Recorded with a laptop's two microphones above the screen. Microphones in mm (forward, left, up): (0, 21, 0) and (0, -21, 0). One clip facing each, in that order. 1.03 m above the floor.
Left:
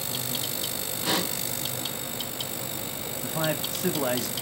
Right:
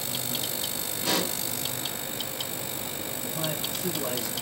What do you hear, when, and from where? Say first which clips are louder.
1.0 s a pop: even; 10° left (ahead or behind), 1.1 m
3.2 s a man speaking: left 5 dB; 70° left (ahead or behind), 0.5 m